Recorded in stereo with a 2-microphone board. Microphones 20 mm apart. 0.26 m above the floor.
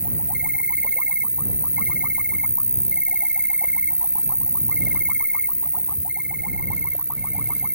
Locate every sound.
0.0 s an insect: 55° right (ahead or behind)